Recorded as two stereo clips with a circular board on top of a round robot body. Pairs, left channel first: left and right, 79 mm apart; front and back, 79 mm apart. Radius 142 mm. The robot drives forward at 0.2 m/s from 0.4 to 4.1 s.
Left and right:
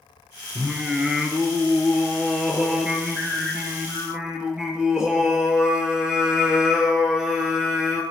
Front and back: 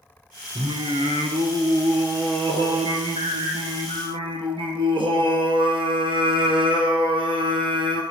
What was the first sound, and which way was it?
Singing, 170° right.